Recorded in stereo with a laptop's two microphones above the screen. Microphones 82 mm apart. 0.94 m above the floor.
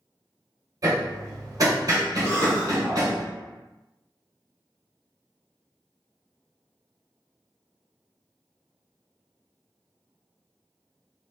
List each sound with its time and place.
0.8 s hammering: 45° right (ahead or behind), 1.1 m
2.2 s a cough: 60° left (ahead or behind), 1.2 m